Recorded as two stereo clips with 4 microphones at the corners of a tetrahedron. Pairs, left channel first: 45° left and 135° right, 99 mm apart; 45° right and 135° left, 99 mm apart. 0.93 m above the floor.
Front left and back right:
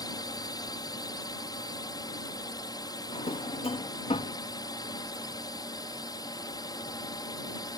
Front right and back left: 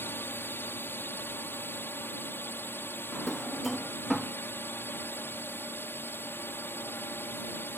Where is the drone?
15° left.